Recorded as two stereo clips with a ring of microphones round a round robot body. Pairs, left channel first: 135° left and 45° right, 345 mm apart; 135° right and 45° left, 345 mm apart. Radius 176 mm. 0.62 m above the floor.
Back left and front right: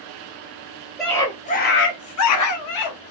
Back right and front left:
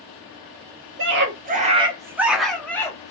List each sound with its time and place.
1.0 s a scream: 45° left, 0.7 m; by 3.1 s 145° left, 1.1 m